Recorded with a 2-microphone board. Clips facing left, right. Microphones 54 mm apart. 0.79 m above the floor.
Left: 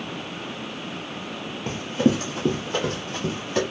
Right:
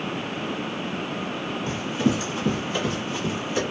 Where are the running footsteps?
40° left (ahead or behind), 0.9 m; by 3.6 s 55° left (ahead or behind), 2.5 m.